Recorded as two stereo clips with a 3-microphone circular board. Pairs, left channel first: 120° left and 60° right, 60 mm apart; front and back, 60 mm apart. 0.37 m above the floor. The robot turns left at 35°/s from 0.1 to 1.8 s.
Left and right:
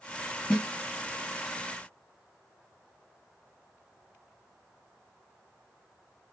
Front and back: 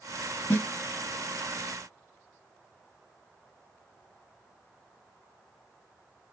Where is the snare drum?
50° left, 2 m; by 0.7 s 45° left, 2 m.